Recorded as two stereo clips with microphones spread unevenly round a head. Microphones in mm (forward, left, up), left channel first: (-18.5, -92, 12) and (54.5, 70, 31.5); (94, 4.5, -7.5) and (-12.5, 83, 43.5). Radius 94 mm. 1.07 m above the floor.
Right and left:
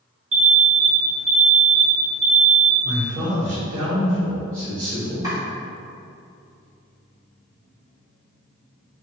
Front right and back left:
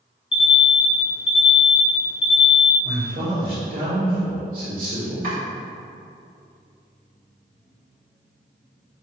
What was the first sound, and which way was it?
An alarm, 10° left.